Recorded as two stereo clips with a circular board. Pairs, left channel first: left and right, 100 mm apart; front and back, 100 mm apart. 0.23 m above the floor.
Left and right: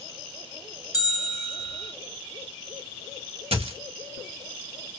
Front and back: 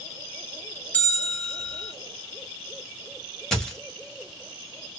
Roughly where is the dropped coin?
Right.